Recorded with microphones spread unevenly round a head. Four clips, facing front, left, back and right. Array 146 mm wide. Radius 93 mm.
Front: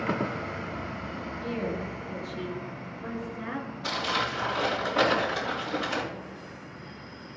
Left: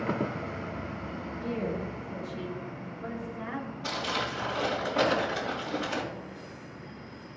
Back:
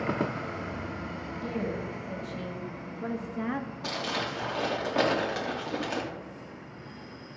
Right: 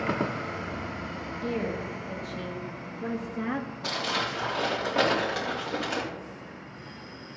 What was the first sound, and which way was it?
A woman speaking, 150° right.